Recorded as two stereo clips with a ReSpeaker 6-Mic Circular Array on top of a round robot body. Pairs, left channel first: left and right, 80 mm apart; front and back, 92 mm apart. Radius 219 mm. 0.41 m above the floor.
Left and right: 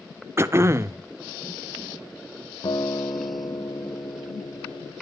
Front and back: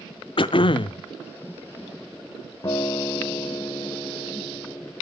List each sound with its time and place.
0.4 s throat clearing: 30° right, 0.8 m
2.6 s a guitar: 50° left, 1.8 m